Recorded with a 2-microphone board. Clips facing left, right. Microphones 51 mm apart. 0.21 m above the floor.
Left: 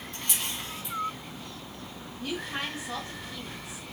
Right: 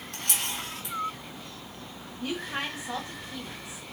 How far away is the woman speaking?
About 1.4 m.